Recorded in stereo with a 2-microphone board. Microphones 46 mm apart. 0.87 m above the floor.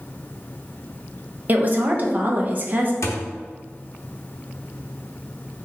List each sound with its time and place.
1.5 s a woman speaking: 40° right (ahead or behind), 0.7 m
3.0 s a thud: 75° left (ahead or behind), 0.6 m